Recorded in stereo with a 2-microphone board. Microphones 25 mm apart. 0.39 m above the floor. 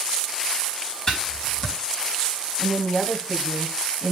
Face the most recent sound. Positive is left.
turn(degrees=40)  # may be behind; listen again after turning